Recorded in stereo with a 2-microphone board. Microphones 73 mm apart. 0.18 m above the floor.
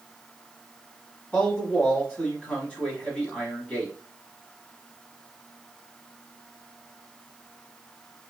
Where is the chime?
No chime in this recording.